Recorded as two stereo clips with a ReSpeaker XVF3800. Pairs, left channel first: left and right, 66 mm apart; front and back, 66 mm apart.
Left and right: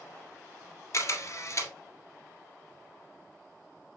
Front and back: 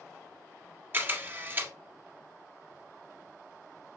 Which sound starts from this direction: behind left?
A camera shutter, at 0.9 s.